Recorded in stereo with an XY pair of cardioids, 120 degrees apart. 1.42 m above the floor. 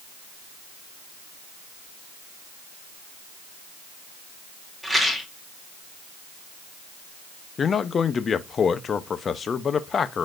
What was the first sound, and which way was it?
A rattle, straight ahead.